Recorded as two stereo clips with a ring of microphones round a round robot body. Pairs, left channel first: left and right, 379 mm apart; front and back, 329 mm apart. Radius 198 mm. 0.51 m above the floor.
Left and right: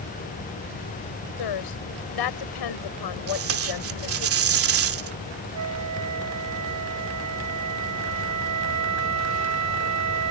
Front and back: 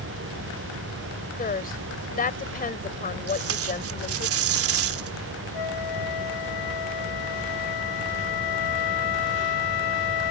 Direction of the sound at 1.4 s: 65° left.